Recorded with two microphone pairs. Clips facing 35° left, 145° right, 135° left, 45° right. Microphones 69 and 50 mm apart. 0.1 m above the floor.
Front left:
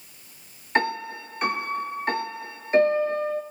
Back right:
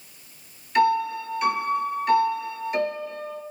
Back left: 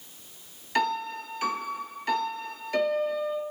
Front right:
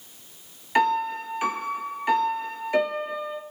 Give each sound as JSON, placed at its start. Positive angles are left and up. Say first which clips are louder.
{"t": 0.8, "sound": "a piano", "louder": "back right 5 dB, front right 5 dB", "azimuth_deg": 20, "distance_m": 0.7}